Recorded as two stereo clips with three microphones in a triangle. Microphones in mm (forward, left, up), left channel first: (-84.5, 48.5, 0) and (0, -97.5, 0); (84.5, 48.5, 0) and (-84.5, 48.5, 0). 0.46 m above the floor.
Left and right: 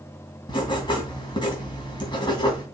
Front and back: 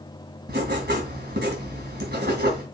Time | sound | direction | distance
0.5 | writing | 175° right | 3 m